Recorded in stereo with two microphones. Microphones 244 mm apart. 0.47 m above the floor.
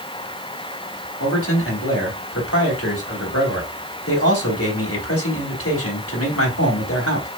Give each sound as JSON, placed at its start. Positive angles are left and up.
{"t": 1.2, "sound": "a man speaking", "side_deg": 65, "distance_m": 3.5}